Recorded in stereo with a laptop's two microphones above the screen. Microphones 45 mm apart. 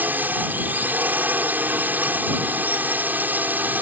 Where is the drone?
40° right (ahead or behind).